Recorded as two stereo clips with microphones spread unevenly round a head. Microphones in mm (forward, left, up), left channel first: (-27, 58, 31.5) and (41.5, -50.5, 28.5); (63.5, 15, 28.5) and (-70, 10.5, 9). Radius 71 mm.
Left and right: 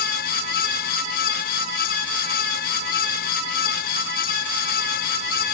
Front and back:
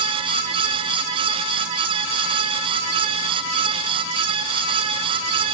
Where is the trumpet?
No trumpet in this recording.